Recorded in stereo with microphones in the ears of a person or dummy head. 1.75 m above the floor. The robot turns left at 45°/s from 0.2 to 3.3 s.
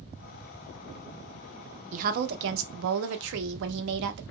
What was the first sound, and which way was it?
A woman speaking, 45° right.